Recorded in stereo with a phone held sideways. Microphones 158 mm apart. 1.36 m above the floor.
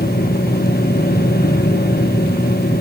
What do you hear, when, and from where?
0.0 s a machine running: 85° left, 1.3 m